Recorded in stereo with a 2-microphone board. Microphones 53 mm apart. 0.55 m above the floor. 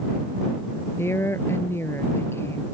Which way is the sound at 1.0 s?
55° left (ahead or behind).